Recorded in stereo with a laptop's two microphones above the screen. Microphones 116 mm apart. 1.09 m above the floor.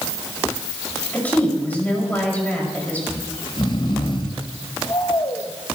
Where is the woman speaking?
15° left (ahead or behind), 5.5 m.